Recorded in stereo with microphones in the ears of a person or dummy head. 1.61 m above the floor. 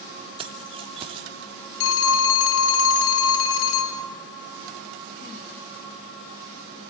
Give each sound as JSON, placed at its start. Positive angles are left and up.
{"t": 0.4, "sound": "keys jangling", "side_deg": -30, "distance_m": 2.5}
{"t": 1.8, "sound": "a phone ringing", "side_deg": 70, "distance_m": 2.0}